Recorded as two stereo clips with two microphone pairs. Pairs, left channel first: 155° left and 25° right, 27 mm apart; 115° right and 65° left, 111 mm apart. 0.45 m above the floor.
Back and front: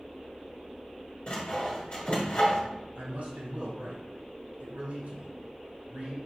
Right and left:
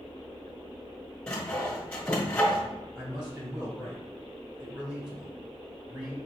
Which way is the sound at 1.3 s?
175° left.